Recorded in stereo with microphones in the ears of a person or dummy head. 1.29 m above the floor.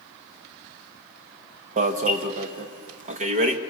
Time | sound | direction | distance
1.8 | an alarm | 40° right (ahead or behind) | 1.2 m